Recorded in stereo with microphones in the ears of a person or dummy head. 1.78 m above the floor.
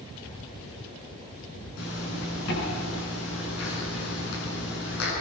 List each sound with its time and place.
1.8 s a zipper: 75° left (ahead or behind), 8.5 m